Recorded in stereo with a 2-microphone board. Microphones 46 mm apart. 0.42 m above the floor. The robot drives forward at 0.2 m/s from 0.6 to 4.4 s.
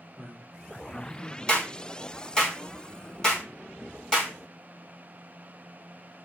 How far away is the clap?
About 1.1 m.